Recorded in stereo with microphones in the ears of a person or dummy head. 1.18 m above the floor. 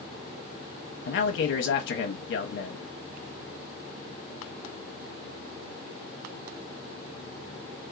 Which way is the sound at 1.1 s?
60° left (ahead or behind).